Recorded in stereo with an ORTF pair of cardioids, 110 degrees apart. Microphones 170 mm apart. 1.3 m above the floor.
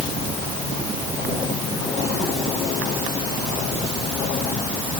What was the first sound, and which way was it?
Only background noise.